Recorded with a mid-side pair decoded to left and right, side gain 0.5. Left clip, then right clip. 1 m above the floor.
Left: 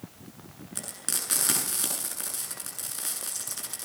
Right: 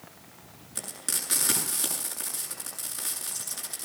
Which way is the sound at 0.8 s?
15° left.